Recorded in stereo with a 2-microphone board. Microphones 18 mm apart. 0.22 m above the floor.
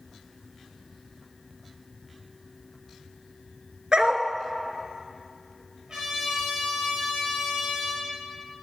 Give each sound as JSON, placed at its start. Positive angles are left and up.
{"t": 3.9, "sound": "a dog barking", "side_deg": -45, "distance_m": 0.8}
{"t": 5.9, "sound": "a trumpet", "side_deg": -40, "distance_m": 4.5}